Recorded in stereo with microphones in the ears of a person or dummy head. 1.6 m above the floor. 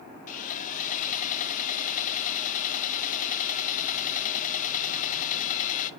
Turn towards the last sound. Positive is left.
turn(degrees=45)  # may be behind; listen again after turning